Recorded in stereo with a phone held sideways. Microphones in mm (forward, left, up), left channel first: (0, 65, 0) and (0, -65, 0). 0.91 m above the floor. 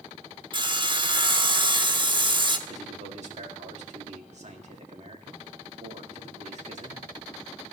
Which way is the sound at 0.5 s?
35° right (ahead or behind).